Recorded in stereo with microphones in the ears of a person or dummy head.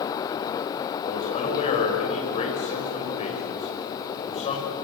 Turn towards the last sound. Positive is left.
turn(degrees=35)  # may be behind; listen again after turning